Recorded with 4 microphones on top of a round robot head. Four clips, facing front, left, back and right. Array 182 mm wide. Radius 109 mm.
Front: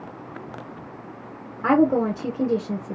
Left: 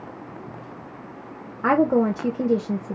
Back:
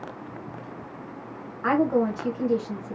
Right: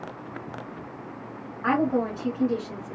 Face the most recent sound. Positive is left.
turn(degrees=60)